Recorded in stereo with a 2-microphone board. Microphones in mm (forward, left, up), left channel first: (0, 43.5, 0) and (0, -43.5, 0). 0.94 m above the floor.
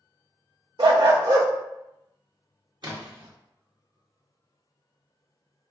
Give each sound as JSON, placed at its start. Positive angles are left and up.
{"t": 0.8, "sound": "a dog barking", "side_deg": -60, "distance_m": 0.5}
{"t": 2.8, "sound": "a splash", "side_deg": -60, "distance_m": 0.7}